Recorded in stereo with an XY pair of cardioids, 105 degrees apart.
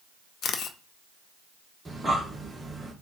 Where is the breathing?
15° right, 1.4 m.